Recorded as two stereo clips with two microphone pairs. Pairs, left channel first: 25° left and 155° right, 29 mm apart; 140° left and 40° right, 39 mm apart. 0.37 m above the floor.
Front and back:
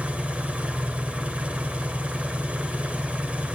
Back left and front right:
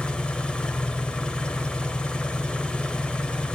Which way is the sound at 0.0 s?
170° right.